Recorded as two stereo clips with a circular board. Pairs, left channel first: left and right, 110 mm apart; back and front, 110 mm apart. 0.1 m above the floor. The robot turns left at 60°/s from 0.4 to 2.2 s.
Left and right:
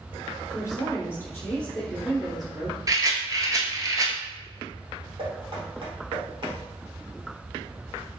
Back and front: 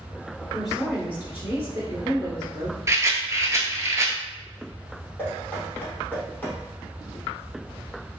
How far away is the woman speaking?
About 1.5 m.